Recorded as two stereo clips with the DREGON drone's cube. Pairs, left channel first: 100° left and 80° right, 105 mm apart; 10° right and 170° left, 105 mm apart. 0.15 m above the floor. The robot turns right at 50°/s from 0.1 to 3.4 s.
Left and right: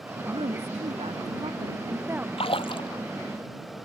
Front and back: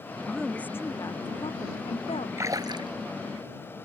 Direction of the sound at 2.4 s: 110° left.